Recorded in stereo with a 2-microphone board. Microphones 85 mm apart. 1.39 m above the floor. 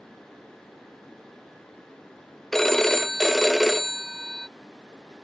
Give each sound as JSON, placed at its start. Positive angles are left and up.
{"t": 2.5, "sound": "a phone ringing", "side_deg": 5}